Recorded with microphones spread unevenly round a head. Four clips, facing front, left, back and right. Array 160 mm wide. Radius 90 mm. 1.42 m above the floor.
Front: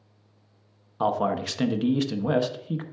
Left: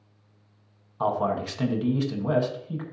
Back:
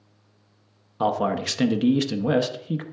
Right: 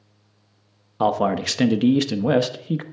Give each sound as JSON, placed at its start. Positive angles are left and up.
{"t": 1.0, "sound": "a man speaking", "azimuth_deg": -110, "distance_m": 0.7}